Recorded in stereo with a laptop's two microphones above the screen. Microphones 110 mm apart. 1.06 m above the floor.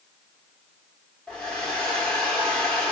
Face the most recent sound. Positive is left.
turn(degrees=5)  # may be behind; listen again after turning